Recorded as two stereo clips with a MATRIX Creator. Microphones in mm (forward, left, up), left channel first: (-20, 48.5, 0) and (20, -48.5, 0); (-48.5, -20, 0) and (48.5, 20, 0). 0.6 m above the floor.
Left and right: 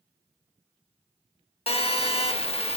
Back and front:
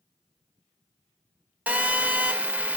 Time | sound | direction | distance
1.7 | a phone buzzing | 100° left | 0.5 m